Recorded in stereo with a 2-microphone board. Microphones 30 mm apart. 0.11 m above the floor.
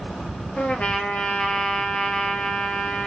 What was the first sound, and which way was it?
A trumpet, 50° left (ahead or behind).